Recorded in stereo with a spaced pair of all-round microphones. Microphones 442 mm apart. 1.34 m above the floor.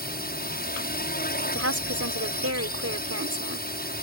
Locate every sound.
0.0 s a drone: 20° left (ahead or behind)
1.6 s a woman speaking: 35° right (ahead or behind)